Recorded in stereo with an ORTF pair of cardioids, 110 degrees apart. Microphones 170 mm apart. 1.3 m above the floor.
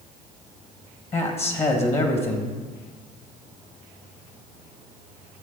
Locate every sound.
1.1 s a man speaking: 35° left, 1.8 m